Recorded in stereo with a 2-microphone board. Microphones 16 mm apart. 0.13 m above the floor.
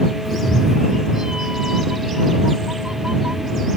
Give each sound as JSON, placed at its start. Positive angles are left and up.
{"t": 0.2, "sound": "a cat meowing", "side_deg": -15}